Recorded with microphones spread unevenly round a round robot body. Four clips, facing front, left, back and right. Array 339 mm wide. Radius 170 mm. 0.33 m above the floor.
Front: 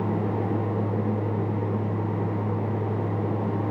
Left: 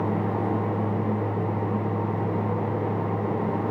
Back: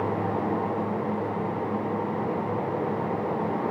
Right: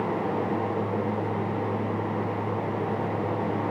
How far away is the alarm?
No alarm in this recording.